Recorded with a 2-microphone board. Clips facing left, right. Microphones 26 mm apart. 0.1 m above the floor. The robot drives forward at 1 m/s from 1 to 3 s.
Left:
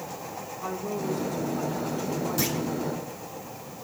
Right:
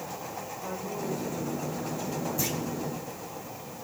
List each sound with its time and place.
0.6 s a woman speaking: 70° left (ahead or behind), 7 m; by 2.8 s 60° left (ahead or behind), 7.5 m
2.4 s a clunk: 75° left (ahead or behind), 3.5 m